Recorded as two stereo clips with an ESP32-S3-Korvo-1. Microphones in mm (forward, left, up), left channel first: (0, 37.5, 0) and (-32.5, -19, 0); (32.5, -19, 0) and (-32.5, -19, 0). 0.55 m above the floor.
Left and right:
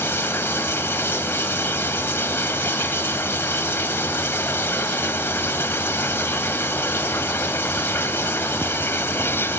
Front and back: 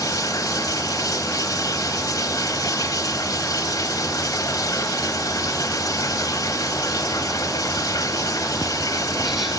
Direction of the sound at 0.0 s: 5° left.